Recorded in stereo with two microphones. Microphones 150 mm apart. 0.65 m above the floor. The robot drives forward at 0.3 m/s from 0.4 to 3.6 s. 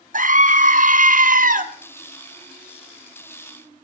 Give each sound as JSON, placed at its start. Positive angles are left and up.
{"t": 0.1, "sound": "a scream", "side_deg": -60, "distance_m": 1.2}